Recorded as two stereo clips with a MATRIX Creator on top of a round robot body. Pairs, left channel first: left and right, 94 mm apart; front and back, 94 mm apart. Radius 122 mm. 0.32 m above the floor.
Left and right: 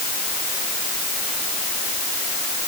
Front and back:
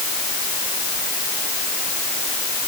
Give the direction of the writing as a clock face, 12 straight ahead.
I don't hear writing.